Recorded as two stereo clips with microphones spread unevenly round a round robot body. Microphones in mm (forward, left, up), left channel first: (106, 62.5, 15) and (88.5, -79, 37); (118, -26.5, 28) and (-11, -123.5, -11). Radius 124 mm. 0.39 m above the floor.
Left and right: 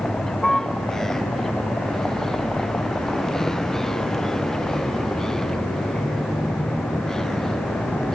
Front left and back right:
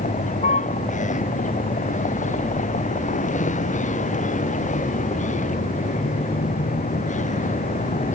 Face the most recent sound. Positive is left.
turn(degrees=-5)